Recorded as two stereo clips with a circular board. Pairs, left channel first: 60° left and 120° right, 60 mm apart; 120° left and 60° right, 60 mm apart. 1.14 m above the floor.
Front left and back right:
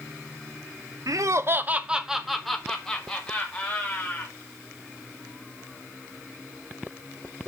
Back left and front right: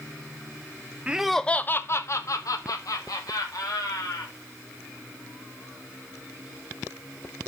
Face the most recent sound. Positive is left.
turn(degrees=135)